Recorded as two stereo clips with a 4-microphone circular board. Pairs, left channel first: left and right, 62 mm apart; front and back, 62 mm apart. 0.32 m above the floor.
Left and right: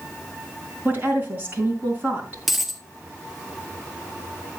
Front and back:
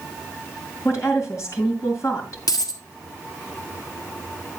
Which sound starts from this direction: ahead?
A dropped coin, at 2.5 s.